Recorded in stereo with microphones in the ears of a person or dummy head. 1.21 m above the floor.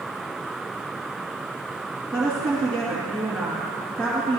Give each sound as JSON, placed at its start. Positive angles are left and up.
{"t": 2.1, "sound": "a woman speaking", "side_deg": 5, "distance_m": 2.5}